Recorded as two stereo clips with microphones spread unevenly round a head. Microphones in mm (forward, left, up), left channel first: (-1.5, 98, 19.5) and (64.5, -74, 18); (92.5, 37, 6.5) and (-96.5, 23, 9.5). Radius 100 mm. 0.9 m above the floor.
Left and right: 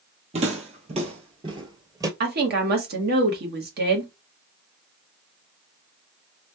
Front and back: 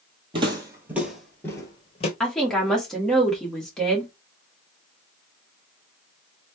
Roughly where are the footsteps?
Behind right.